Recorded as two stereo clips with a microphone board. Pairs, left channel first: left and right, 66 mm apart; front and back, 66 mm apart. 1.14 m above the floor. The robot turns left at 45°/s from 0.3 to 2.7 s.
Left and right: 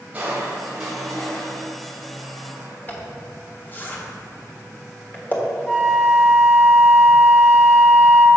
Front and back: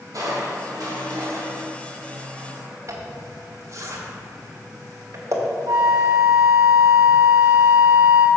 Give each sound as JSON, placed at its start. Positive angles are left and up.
{"t": 0.1, "sound": "crushing", "azimuth_deg": -160, "distance_m": 3.0}
{"t": 2.9, "sound": "a zipper", "azimuth_deg": 145, "distance_m": 1.4}
{"t": 5.7, "sound": "a flute", "azimuth_deg": 170, "distance_m": 1.3}